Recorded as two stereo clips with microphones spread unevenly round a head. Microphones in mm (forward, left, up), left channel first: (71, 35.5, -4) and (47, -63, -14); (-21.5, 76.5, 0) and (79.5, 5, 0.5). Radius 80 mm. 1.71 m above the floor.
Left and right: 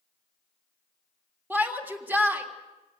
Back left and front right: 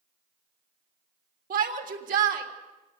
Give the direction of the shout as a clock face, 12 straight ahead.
1 o'clock.